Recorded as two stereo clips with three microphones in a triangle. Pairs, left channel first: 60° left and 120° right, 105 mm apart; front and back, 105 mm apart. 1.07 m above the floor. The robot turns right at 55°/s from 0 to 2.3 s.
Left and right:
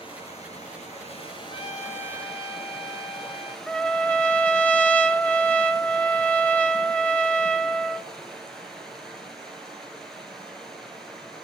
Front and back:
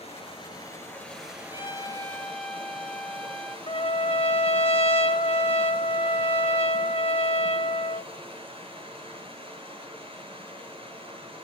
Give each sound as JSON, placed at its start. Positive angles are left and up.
{"t": 0.0, "sound": "running water", "azimuth_deg": 20, "distance_m": 7.5}
{"t": 1.5, "sound": "a trumpet", "azimuth_deg": 40, "distance_m": 2.0}
{"t": 3.7, "sound": "a trumpet", "azimuth_deg": -20, "distance_m": 1.9}